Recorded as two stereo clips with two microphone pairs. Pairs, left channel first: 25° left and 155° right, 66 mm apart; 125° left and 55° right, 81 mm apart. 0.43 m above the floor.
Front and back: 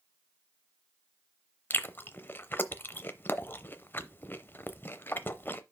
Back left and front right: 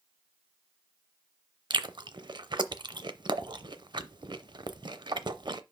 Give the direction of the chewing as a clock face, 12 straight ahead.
1 o'clock.